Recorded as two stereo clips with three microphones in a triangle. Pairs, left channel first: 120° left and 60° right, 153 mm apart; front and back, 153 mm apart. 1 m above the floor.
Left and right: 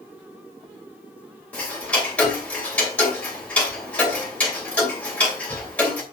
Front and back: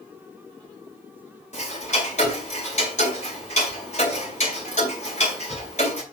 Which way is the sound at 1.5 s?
40° left.